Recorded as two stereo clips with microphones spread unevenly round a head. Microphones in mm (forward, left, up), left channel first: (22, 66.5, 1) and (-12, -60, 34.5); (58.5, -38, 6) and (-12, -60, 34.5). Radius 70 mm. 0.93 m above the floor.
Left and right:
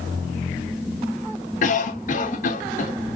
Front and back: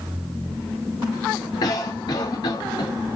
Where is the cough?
55° left, 2.5 m.